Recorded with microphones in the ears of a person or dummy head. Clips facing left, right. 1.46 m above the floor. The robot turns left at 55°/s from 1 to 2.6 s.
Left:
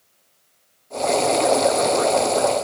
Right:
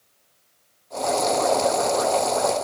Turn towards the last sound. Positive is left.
No sound to turn to.